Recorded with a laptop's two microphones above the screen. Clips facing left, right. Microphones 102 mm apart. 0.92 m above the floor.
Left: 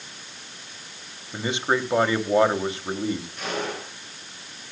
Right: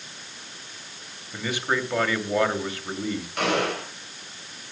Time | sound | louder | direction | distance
1.3 | a man speaking | left 3 dB | 25° left (ahead or behind) | 2.5 m
3.4 | a gunshot | right 5 dB | 80° right | 6 m